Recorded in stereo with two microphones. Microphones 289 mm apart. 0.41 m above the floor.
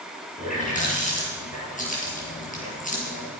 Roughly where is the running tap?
Left.